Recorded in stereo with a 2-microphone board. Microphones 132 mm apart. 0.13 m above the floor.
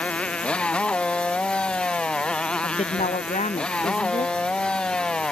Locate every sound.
0.0 s a motorcycle: 10° left (ahead or behind); by 5.3 s 5° left (ahead or behind)
2.6 s a woman speaking: 55° left (ahead or behind)